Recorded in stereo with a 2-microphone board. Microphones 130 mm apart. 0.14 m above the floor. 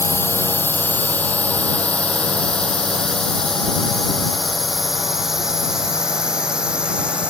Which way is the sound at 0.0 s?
20° left (ahead or behind).